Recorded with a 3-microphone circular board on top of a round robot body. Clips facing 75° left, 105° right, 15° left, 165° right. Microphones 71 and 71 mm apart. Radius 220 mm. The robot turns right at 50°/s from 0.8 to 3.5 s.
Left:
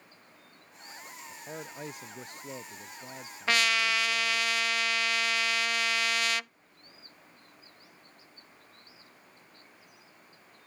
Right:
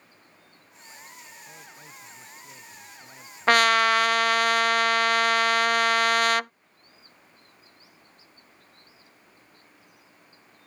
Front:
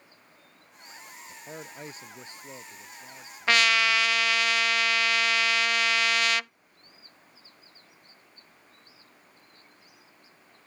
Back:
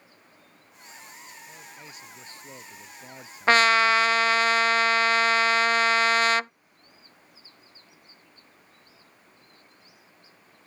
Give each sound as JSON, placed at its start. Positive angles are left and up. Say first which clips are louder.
{"t": 1.3, "sound": "a man speaking", "louder": "left 5 dB, front 4 dB", "azimuth_deg": 35}
{"t": 3.5, "sound": "a trumpet", "louder": "right 9 dB, back 5 dB", "azimuth_deg": -120}